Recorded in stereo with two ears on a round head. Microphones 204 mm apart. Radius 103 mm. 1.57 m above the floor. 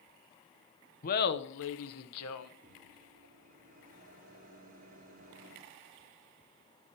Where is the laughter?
35° left (ahead or behind), 0.9 m; by 2.5 s 75° left (ahead or behind), 1.3 m.